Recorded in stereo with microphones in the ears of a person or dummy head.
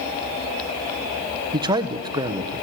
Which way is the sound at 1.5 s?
25° right (ahead or behind).